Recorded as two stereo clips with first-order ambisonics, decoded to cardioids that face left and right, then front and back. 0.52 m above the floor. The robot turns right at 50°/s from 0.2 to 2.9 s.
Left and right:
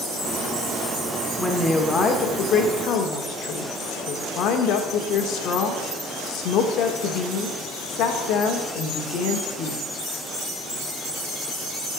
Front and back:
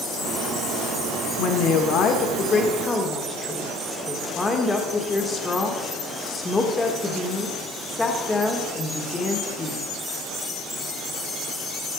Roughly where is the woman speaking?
Ahead.